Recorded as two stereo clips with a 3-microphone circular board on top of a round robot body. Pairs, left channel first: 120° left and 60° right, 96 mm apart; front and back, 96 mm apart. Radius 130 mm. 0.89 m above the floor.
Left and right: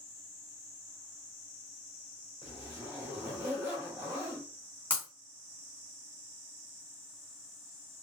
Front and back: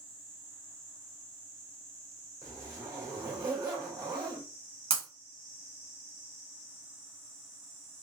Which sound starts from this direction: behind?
Breaking glass, at 4.9 s.